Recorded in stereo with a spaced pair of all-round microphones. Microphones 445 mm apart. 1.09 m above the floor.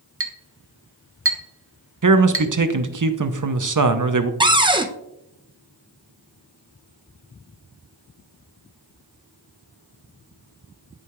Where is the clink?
30° right (ahead or behind), 0.8 m.